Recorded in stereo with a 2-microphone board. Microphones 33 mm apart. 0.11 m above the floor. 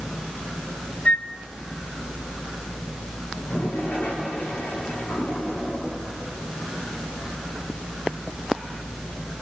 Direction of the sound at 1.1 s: 45° left (ahead or behind).